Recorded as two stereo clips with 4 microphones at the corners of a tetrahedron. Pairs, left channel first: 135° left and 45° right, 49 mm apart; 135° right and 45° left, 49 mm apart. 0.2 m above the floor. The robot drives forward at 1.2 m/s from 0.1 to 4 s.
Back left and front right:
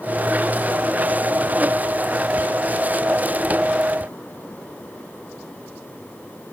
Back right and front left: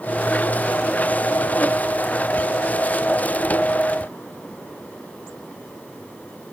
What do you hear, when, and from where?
Only background noise.